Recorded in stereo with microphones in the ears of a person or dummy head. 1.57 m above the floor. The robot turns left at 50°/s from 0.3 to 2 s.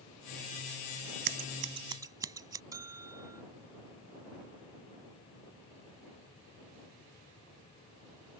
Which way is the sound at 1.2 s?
50° right (ahead or behind).